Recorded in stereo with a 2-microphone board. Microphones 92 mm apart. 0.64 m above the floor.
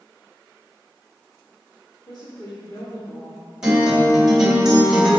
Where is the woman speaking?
55° left (ahead or behind), 1.7 m.